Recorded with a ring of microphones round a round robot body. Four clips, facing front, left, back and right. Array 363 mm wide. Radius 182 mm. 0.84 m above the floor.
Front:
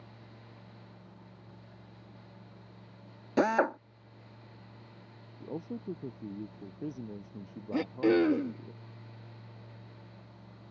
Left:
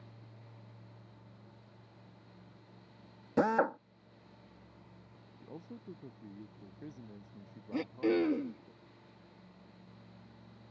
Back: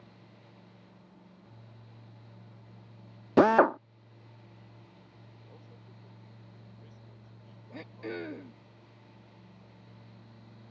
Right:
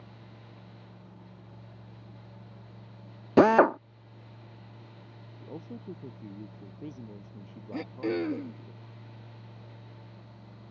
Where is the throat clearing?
5° left.